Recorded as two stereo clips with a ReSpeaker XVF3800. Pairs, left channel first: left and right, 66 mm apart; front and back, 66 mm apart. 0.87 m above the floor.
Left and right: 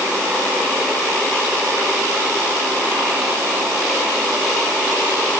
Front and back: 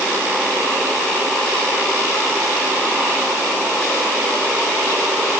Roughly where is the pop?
No pop in this recording.